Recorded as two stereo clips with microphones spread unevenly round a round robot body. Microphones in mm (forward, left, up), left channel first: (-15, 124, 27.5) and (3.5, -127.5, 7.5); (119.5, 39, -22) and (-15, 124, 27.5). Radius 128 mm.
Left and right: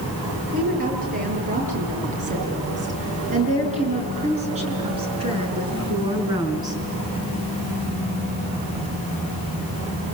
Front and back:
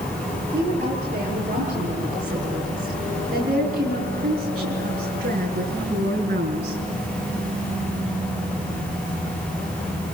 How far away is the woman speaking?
About 9 m.